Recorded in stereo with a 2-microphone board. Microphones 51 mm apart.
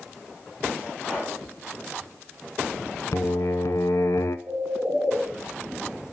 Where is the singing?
80° left, 0.5 m.